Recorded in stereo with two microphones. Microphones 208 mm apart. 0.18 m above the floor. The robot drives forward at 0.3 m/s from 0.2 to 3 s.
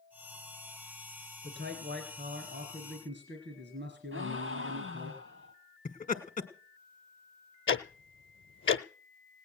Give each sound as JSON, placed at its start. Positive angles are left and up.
{"t": 1.4, "sound": "a man speaking", "side_deg": -60, "distance_m": 3.0}
{"t": 4.1, "sound": "a gasp", "side_deg": -70, "distance_m": 3.0}
{"t": 5.8, "sound": "laughter", "side_deg": 40, "distance_m": 1.6}
{"t": 7.7, "sound": "ticking", "side_deg": 70, "distance_m": 0.8}